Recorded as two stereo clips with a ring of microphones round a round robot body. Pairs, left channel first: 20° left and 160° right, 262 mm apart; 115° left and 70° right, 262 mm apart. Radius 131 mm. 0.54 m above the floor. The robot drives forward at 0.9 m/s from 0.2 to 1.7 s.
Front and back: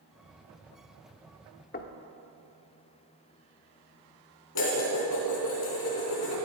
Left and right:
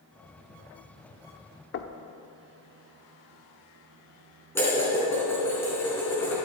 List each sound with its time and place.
1.7 s knocking: 75° left, 0.8 m
4.5 s dishes clattering: 30° left, 4.5 m